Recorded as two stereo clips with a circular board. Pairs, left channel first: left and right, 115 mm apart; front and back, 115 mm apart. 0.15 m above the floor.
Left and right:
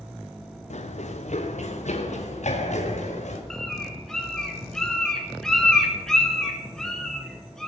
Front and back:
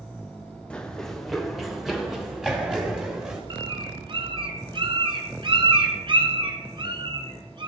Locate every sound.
0.7 s running footsteps: 80° left, 1.5 m; by 3.4 s 100° left, 3.5 m
3.5 s a bird: 175° left, 2.0 m